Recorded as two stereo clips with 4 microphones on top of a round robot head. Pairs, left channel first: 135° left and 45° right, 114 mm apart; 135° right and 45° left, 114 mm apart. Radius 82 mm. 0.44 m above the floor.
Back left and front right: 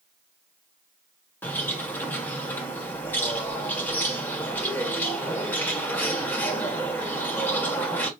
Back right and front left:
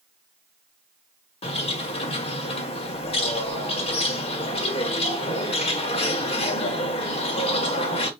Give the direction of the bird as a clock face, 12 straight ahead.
5 o'clock.